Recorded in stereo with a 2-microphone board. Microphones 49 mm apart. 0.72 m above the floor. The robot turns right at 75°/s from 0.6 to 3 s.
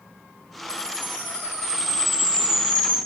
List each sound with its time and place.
0.7 s a chime: 40° right, 1.7 m; by 3.0 s 130° left, 1.7 m